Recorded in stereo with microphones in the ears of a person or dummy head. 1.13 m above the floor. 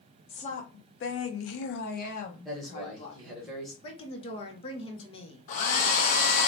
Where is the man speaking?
Centre (ahead or behind), 0.8 m.